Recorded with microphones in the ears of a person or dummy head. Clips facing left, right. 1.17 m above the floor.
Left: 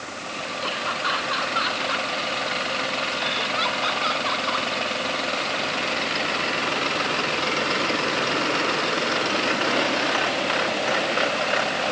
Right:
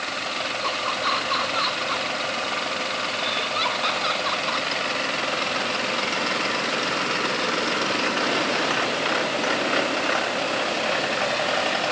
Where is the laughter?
15° left (ahead or behind); by 4.7 s 5° left (ahead or behind).